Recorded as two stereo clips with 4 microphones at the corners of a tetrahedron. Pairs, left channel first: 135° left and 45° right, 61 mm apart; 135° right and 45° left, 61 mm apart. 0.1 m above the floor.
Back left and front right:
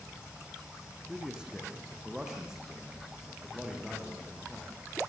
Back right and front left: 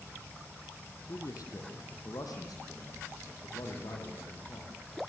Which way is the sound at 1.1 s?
125° right.